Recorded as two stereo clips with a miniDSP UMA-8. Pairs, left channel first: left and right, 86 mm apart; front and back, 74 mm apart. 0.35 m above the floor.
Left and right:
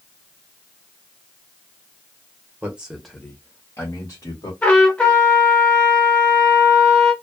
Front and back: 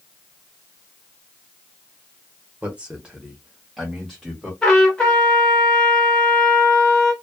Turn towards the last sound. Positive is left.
turn(degrees=50)